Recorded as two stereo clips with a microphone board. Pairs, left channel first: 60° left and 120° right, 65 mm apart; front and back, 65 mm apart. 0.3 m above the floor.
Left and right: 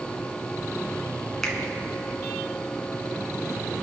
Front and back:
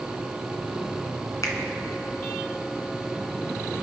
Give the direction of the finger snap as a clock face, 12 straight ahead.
1 o'clock.